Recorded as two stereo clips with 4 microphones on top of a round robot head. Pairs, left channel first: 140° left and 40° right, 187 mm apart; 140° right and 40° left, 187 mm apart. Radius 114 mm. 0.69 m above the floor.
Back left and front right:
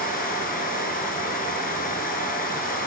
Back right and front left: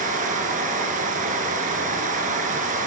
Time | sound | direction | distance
0.0 | running water | 90° left | 6.5 m